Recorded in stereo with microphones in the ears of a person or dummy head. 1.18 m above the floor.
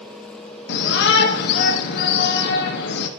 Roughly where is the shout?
Left.